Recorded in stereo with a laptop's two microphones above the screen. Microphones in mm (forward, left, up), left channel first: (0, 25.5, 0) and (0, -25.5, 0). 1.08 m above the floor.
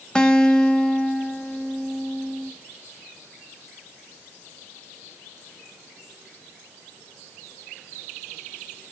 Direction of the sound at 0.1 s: 10° left (ahead or behind).